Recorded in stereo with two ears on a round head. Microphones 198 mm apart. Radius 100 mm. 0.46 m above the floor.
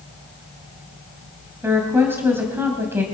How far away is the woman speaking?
About 2.5 m.